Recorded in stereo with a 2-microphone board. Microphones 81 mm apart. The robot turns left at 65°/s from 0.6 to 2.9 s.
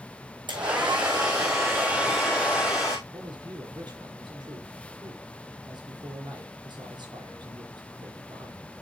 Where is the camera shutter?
I don't hear a camera shutter.